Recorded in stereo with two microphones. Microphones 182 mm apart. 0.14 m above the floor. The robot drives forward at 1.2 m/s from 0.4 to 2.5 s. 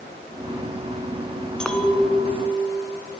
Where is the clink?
5° left (ahead or behind), 0.9 m; by 3.1 s centre (ahead or behind), 1.7 m.